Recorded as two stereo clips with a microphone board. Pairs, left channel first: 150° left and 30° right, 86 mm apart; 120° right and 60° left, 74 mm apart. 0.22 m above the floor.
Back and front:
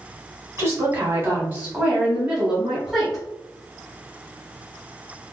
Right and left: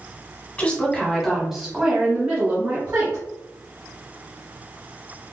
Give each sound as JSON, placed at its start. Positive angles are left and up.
{"t": 0.6, "sound": "a woman speaking", "azimuth_deg": -65, "distance_m": 1.6}